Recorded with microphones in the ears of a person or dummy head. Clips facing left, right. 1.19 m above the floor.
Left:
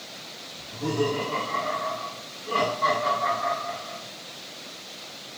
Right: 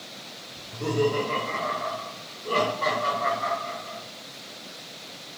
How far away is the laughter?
About 1.9 m.